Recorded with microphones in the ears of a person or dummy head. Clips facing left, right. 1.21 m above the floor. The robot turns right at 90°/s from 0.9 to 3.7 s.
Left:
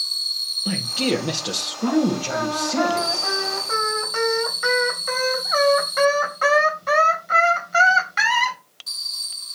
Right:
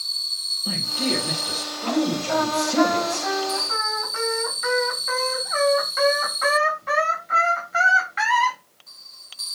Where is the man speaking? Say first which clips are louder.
Left 4 dB; 35° left, 1.4 m; by 3.3 s 110° right, 1.4 m.